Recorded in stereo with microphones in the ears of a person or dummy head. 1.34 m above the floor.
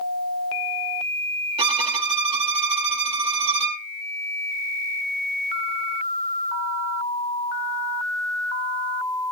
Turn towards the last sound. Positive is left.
turn(degrees=-30)  # may be behind; listen again after turning